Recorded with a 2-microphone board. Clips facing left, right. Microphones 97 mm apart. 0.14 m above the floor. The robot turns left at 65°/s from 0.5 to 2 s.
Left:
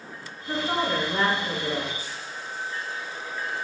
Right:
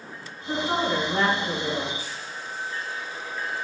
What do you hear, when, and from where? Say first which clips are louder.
0.5 s a woman speaking: right 1 dB; 5° right (ahead or behind), 1.5 m; by 1.9 s 25° left (ahead or behind), 1.5 m